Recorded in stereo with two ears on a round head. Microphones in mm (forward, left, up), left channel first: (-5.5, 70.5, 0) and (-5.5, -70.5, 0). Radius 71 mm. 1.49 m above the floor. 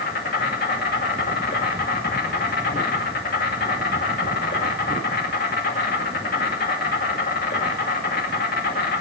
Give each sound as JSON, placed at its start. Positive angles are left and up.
{"t": 0.0, "sound": "an insect", "side_deg": 65, "distance_m": 2.0}